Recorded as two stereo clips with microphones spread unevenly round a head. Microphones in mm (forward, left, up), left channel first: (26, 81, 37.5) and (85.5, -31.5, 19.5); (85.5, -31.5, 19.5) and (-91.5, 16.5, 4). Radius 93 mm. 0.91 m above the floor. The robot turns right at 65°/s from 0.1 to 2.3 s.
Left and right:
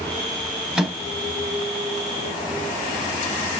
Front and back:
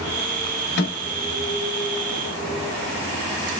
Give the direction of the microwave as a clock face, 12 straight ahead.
11 o'clock.